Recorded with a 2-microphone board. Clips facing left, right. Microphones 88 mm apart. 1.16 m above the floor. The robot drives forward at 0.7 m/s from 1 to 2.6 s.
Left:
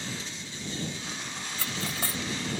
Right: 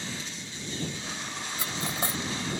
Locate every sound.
1.6 s cutlery clinking: 20° right (ahead or behind)